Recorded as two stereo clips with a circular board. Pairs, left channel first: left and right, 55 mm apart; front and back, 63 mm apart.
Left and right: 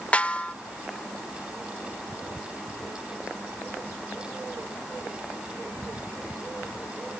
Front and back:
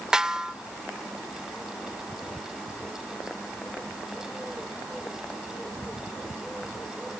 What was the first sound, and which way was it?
A snare drum, 115° left.